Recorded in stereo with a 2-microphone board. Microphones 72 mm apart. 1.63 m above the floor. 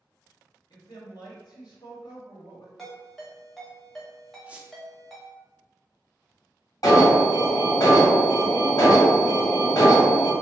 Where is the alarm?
55° left (ahead or behind), 1.5 m.